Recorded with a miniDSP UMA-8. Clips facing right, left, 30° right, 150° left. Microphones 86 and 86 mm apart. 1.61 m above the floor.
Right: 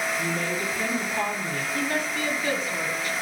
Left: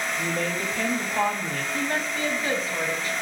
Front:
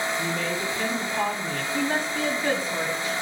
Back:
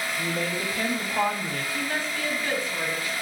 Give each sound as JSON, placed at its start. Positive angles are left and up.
{"t": 0.2, "sound": "a woman speaking", "azimuth_deg": 100, "distance_m": 2.5}
{"t": 1.7, "sound": "a woman speaking", "azimuth_deg": 35, "distance_m": 2.5}